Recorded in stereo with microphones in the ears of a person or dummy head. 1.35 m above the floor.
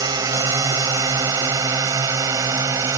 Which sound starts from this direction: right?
A drone, at 0.0 s.